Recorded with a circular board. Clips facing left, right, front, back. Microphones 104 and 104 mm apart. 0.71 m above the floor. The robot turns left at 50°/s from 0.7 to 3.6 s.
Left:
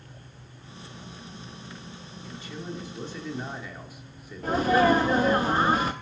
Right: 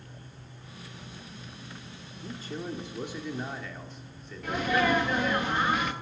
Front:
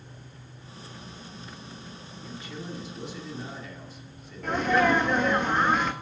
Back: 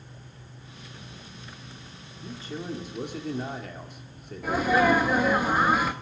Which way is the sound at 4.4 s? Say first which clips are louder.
Left 6 dB, back 1 dB; 100° left.